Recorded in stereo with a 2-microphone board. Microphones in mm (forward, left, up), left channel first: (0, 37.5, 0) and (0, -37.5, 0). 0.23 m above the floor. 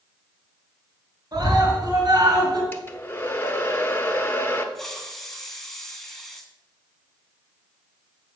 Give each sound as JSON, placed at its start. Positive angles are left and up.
{"t": 1.3, "sound": "a scream", "side_deg": -60, "distance_m": 3.5}
{"t": 2.7, "sound": "a hair dryer", "side_deg": 30, "distance_m": 0.9}
{"t": 4.8, "sound": "a hiss", "side_deg": 5, "distance_m": 1.3}